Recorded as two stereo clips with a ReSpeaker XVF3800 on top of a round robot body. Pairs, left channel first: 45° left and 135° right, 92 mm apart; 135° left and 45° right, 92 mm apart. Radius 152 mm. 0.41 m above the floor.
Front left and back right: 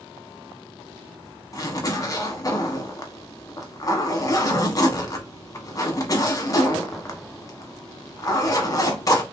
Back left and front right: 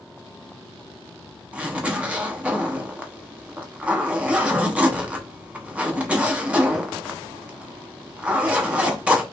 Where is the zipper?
25° left, 1.2 m.